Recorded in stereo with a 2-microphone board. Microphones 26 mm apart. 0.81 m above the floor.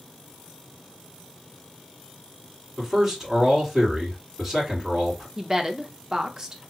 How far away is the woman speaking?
About 0.7 m.